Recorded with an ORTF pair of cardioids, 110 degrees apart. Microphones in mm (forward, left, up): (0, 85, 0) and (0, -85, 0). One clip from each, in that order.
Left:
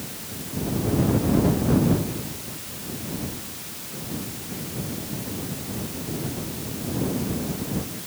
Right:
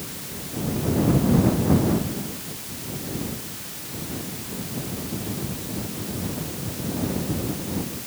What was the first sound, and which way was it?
Only background noise.